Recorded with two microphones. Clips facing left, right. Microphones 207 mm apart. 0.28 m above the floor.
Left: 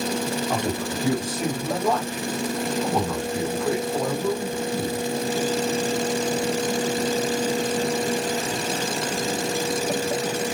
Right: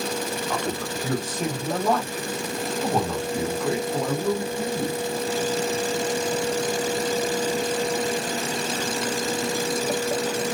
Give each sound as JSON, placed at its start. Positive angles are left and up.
{"t": 0.5, "sound": "a man speaking", "side_deg": 25, "distance_m": 1.2}